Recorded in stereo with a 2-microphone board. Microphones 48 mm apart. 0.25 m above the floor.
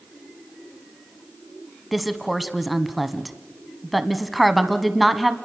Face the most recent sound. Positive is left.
turn(degrees=0)  # may be behind; listen again after turning